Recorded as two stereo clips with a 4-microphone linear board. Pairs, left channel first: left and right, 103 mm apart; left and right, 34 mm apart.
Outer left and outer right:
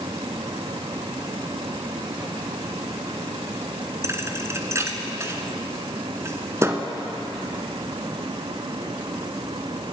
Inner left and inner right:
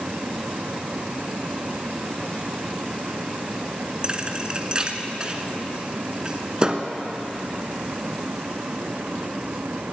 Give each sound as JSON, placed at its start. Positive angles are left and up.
{"t": 4.0, "sound": "a thud", "side_deg": -30, "distance_m": 1.3}